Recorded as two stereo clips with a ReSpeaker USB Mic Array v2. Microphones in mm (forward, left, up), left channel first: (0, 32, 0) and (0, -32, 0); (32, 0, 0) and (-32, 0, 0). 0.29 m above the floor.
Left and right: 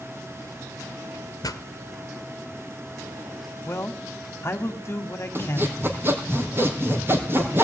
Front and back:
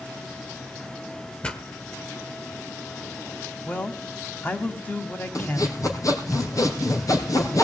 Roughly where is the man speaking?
Ahead left.